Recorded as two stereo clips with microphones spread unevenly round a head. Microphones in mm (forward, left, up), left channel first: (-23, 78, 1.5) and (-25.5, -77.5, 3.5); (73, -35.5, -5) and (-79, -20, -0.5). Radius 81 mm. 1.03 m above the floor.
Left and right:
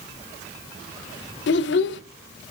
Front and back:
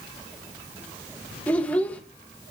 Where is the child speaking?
75° left, 0.6 m.